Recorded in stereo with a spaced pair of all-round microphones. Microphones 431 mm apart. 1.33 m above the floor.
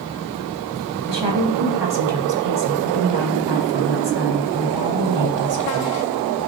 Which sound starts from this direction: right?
A woman speaking, at 1.1 s.